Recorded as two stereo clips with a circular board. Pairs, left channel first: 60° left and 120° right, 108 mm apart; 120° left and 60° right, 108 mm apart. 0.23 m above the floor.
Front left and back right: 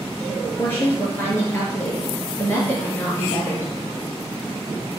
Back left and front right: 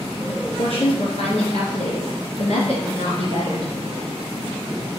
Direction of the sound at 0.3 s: 130° left.